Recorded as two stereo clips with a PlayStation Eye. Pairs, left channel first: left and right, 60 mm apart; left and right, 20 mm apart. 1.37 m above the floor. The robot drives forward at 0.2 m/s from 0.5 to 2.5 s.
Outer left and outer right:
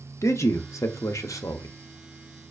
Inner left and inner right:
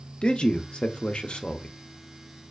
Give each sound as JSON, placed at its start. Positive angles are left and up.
{"t": 0.2, "sound": "a man speaking", "side_deg": 55, "distance_m": 0.6}